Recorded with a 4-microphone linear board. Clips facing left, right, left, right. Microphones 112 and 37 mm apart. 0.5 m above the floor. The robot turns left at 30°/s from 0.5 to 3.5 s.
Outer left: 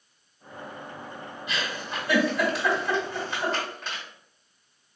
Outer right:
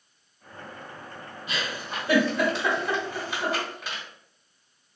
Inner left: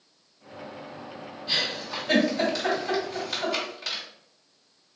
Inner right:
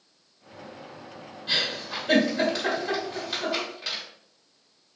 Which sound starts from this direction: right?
A giggle, at 1.5 s.